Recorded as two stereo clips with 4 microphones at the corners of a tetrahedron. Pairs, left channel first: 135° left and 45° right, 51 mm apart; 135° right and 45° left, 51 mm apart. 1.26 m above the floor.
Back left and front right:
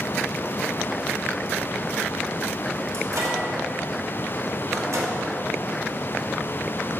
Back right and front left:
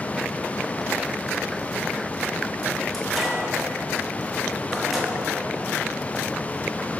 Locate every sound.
2.9 s a microwave: 45° right, 1.5 m